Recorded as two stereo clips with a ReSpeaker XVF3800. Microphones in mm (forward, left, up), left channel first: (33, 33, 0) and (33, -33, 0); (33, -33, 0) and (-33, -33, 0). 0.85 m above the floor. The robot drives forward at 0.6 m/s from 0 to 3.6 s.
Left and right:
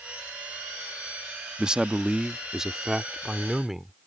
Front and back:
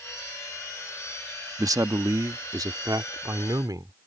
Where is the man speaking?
165° right; by 3.9 s 175° right.